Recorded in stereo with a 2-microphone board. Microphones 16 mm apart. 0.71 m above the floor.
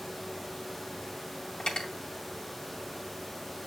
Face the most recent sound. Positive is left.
turn(degrees=65)  # may be behind; listen again after turning